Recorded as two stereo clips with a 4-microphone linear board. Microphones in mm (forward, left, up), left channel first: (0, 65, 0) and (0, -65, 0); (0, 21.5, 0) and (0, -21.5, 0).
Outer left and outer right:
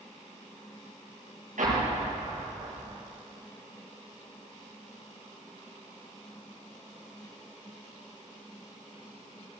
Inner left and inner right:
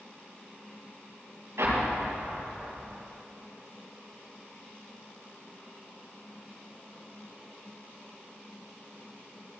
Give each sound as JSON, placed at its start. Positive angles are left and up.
{"t": 1.6, "sound": "an explosion", "side_deg": -80, "distance_m": 5.0}